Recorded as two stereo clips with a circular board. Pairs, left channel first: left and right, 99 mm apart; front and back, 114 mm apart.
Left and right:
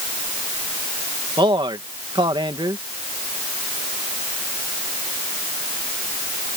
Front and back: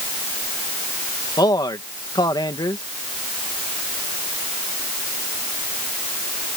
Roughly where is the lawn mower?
I don't hear a lawn mower.